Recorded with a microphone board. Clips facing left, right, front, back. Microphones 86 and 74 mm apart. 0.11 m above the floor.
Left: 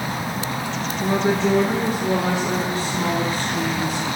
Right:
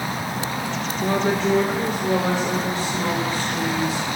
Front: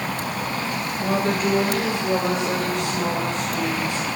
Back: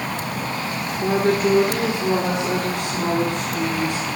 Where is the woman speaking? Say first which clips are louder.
Left 1 dB, back 4 dB; 160° left, 1.2 m; by 4.1 s 145° left, 5 m.